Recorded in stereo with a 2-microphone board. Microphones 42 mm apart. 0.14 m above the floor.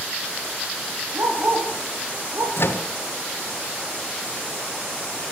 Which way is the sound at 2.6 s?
60° left (ahead or behind).